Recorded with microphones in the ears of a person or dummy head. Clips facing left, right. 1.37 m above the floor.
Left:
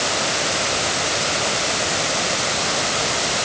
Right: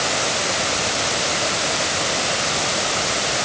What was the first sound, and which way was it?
Only background noise.